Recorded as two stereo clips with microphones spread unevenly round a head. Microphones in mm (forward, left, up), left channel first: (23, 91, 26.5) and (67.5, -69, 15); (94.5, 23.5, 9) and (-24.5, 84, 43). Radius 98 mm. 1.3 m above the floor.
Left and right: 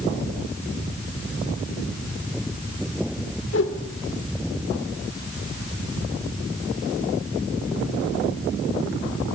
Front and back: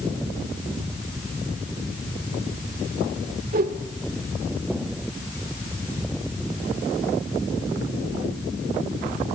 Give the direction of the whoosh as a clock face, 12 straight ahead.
7 o'clock.